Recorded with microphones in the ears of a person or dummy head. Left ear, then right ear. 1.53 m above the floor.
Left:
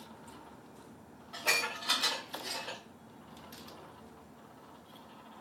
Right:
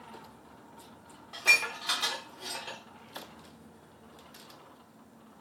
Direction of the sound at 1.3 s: 20° right (ahead or behind).